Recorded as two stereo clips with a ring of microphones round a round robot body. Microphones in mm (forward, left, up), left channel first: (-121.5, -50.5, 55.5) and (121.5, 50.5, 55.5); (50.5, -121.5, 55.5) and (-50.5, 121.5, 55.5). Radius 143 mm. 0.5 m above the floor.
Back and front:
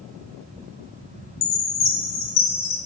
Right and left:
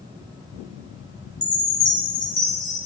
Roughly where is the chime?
Behind right.